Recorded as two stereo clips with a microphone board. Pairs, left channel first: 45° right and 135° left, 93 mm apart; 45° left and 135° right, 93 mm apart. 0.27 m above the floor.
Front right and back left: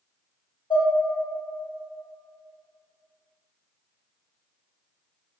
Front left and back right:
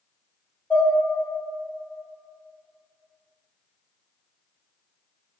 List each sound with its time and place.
0.7 s dishes clattering: 25° right, 1.0 m